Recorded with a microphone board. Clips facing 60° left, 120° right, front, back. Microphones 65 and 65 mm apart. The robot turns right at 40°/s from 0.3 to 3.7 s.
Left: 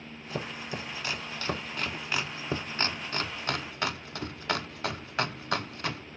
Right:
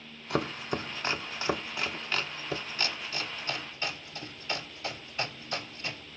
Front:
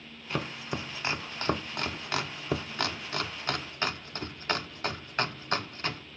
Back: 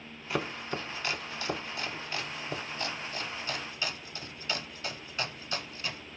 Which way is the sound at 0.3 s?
95° right.